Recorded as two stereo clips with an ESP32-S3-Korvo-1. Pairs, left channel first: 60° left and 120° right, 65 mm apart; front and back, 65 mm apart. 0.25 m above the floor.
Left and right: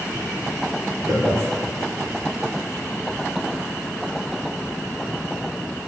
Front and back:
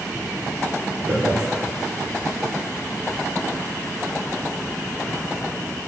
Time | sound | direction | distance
1.1 | laughter | 135° right | 2.5 m